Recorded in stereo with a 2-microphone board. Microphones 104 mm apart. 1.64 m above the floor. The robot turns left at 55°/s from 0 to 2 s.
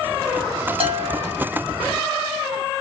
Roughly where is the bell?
Behind right.